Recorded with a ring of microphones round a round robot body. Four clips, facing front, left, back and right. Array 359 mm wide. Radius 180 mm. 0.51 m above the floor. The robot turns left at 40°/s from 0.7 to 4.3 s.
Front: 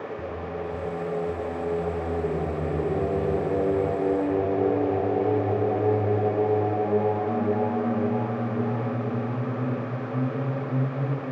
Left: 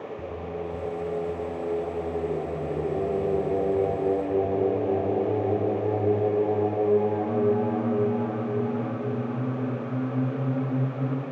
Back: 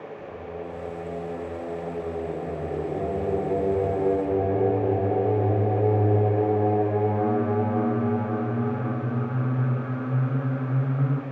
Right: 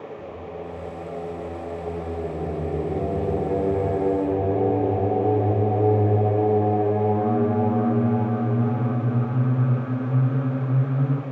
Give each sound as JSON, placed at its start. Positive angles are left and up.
{"t": 0.2, "sound": "singing", "azimuth_deg": 35, "distance_m": 5.0}